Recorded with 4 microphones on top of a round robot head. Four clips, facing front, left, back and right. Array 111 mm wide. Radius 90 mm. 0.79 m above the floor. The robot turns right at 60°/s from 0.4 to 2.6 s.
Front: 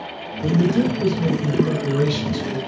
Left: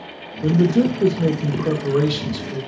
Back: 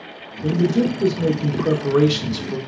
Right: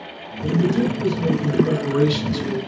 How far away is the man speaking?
About 0.7 m.